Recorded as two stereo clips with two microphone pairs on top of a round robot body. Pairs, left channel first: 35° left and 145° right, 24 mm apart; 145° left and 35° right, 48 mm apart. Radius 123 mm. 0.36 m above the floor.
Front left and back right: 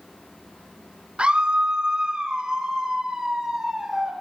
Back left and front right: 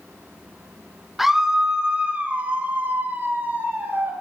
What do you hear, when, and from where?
1.2 s a scream: 120° right, 1.3 m; by 4.1 s 75° right, 2.5 m